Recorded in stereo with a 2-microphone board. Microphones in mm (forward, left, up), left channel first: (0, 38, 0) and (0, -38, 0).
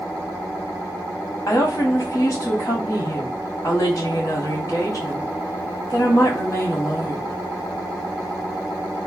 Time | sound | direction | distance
1.5 | a woman speaking | 45° left (ahead or behind) | 1.3 m